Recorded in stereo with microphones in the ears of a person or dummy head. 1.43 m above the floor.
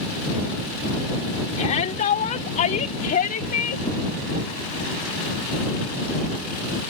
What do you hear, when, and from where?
1.6 s a shout: 45° left (ahead or behind); by 3.9 s 50° left (ahead or behind)